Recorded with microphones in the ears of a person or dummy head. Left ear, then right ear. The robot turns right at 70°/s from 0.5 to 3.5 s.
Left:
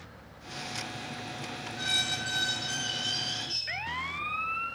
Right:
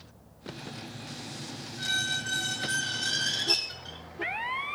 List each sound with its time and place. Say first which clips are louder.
1.8 s a squeak: even; 120° left, 2 m; by 4.0 s 120° right, 2 m